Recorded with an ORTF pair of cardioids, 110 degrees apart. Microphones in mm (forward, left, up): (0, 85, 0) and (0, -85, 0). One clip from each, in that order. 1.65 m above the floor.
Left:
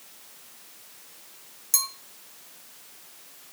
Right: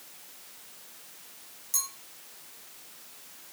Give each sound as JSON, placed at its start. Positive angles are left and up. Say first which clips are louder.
{"t": 1.7, "sound": "a clink", "louder": "left 5 dB", "azimuth_deg": 50, "distance_m": 2.5}